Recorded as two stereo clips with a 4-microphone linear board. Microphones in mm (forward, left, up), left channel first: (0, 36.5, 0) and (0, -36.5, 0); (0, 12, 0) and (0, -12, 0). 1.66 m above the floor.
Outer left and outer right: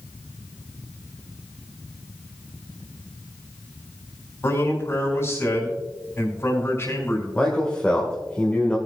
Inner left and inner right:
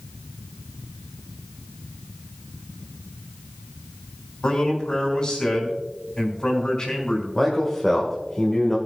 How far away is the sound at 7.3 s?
About 2.0 m.